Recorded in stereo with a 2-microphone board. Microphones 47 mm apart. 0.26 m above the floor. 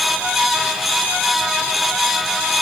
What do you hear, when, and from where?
Only background noise.